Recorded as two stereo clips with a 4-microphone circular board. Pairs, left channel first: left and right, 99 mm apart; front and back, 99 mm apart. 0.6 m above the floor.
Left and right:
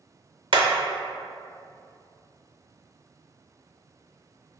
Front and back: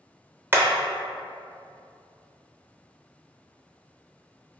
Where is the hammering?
115° right, 0.6 m.